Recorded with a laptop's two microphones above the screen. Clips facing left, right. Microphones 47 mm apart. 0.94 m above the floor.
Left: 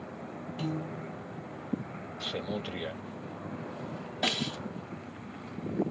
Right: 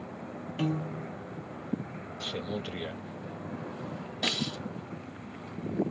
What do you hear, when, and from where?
0.6 s a piano: 45° right (ahead or behind), 0.7 m
2.2 s a man speaking: 5° left (ahead or behind), 0.7 m
4.2 s a snare drum: 20° left (ahead or behind), 2 m